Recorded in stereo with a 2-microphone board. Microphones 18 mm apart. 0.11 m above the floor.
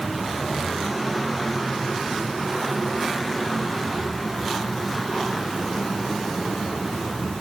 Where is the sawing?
No sawing in this recording.